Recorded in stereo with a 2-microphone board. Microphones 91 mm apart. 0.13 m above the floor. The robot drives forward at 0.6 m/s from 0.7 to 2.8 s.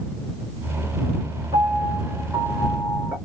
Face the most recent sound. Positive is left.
turn(degrees=-50)  # may be behind; listen again after turning